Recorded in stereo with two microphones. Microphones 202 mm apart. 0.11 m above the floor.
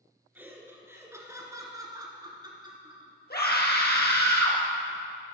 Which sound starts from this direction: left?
A scream, at 3.3 s.